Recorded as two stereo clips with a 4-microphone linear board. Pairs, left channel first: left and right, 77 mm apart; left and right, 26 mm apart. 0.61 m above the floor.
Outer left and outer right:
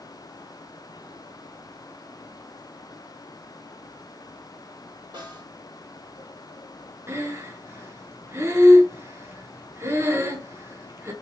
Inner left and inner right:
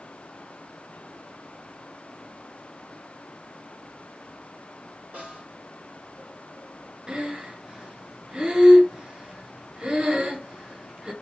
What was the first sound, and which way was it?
A snare drum, 55° right (ahead or behind).